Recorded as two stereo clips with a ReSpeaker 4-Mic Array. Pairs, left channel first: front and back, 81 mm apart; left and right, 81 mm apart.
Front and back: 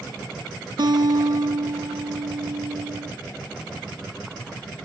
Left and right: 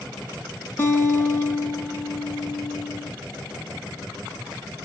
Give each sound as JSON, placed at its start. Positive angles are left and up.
{"t": 0.8, "sound": "a guitar", "azimuth_deg": 155, "distance_m": 3.5}